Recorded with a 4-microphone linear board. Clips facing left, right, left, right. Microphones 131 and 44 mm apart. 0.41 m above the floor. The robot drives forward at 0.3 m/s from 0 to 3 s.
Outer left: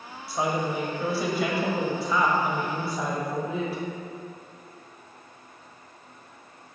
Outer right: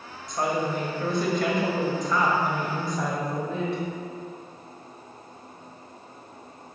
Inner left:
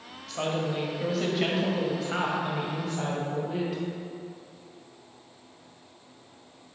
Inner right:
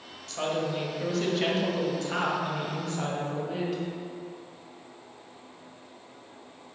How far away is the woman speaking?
About 1.5 m.